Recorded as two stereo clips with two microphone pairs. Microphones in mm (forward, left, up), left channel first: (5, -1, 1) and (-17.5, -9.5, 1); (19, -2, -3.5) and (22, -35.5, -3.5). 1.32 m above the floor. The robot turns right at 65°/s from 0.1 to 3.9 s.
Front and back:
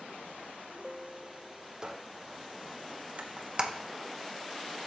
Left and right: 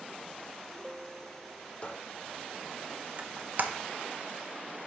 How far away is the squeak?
About 0.6 m.